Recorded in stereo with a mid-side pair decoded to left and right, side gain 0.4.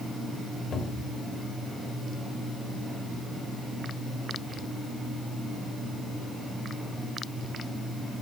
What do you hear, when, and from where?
0.7 s a cupboard door: 55° left, 2.5 m